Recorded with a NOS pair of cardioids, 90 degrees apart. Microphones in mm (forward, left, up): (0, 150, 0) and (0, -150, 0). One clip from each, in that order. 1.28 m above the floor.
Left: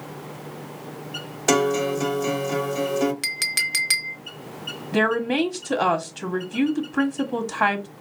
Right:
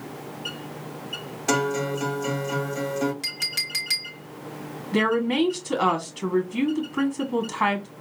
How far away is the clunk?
No clunk in this recording.